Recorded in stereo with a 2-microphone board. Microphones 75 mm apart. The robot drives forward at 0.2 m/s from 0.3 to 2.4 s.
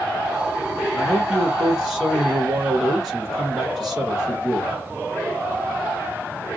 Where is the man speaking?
Centre (ahead or behind), 1.3 m.